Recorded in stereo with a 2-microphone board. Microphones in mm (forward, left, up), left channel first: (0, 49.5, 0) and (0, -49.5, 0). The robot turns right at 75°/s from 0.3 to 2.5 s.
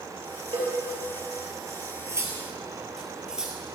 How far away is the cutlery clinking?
About 1.5 m.